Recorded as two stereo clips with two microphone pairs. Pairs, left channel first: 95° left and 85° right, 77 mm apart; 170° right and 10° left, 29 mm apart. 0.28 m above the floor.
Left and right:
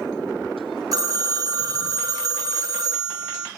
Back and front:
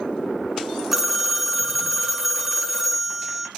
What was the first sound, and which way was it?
A phone ringing, 75° right.